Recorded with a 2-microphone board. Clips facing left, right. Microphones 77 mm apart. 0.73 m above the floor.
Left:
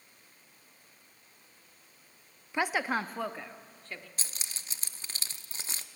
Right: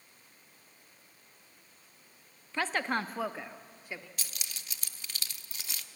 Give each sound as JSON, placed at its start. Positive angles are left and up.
{"t": 2.5, "sound": "a woman speaking", "side_deg": 20, "distance_m": 0.6}
{"t": 4.2, "sound": "keys jangling", "side_deg": 35, "distance_m": 0.7}